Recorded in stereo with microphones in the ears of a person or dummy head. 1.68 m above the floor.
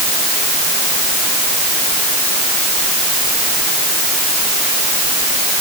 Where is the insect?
I don't hear an insect.